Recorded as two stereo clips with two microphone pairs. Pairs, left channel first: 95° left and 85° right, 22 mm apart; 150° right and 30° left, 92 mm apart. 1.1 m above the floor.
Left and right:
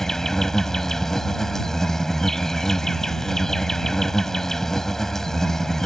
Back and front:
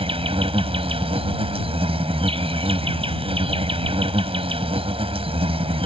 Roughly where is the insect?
Ahead left.